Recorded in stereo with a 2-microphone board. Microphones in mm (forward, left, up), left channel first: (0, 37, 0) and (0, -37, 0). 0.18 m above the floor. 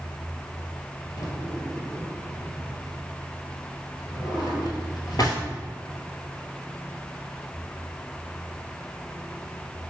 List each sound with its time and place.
1.2 s a drawer: 55° left (ahead or behind), 1.2 m